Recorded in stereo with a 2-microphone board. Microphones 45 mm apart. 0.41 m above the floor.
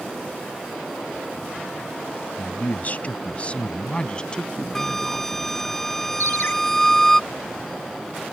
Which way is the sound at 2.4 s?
45° left (ahead or behind).